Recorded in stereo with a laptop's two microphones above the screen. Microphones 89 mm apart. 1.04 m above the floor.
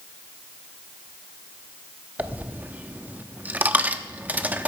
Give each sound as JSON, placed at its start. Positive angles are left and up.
{"t": 2.2, "sound": "a dropped coin", "side_deg": -20, "distance_m": 0.7}